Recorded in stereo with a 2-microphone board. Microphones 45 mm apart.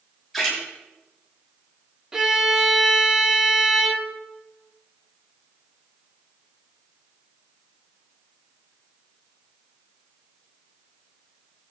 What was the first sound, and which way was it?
A splash, centre (ahead or behind).